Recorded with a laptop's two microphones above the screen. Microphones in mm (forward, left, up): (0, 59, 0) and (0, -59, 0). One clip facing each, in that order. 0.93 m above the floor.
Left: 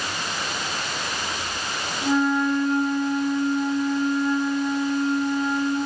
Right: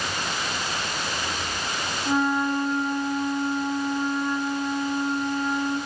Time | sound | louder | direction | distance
2.0 | a flute | left 3 dB | 65° left (ahead or behind) | 1.5 m